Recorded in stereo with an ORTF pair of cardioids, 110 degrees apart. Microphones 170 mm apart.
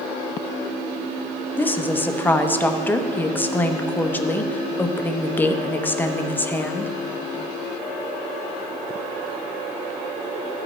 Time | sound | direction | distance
1.6 | a woman speaking | 10° left | 0.8 m